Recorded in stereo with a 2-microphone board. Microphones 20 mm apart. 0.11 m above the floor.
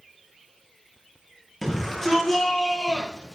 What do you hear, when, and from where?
1.6 s a shout: 10° left (ahead or behind), 3 m; by 3.4 s 20° left (ahead or behind), 4 m